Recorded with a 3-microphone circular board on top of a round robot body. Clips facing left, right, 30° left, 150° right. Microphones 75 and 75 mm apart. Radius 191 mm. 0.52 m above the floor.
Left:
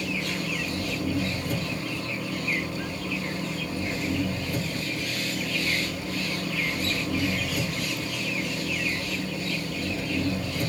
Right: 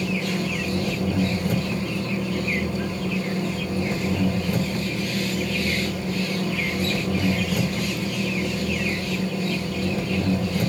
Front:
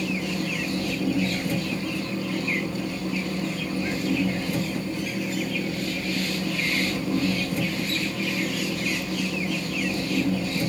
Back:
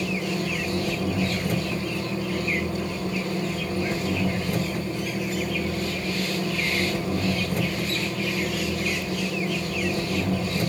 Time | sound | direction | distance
0.0 | an engine running | 110° right | 3 m